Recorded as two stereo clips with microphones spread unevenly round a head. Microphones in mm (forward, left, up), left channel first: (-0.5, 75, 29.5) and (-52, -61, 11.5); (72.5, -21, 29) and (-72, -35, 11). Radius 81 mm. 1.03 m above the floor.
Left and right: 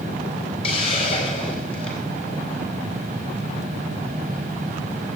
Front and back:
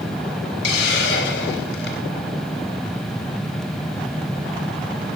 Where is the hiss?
10° left, 4 m.